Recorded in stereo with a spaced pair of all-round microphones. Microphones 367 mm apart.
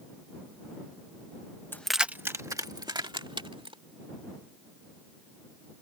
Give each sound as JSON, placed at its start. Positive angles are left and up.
{"t": 1.7, "sound": "keys jangling", "side_deg": 5}